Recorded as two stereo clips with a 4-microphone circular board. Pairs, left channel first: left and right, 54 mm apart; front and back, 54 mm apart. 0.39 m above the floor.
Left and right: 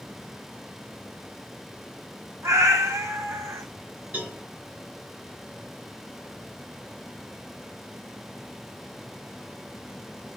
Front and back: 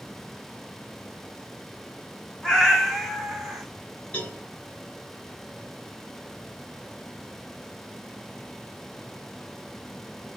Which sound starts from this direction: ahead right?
A cowbell, at 4.1 s.